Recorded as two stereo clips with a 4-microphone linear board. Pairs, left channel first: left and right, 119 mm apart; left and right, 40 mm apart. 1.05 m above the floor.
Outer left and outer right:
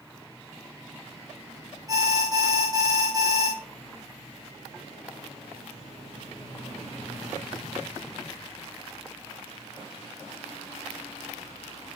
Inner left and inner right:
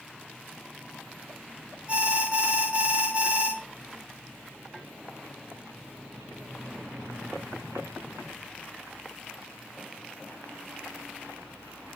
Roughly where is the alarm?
Right.